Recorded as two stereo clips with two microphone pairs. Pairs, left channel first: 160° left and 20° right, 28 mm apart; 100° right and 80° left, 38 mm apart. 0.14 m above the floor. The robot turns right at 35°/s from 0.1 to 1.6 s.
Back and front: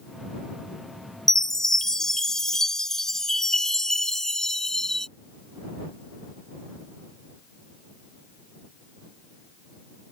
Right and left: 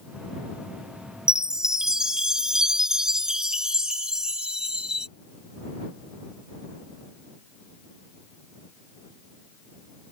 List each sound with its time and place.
1.3 s a chime: 120° left; by 5.1 s 135° left